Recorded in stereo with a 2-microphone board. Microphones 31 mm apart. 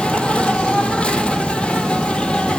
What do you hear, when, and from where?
0.0 s an insect: 30° left (ahead or behind), 1.6 m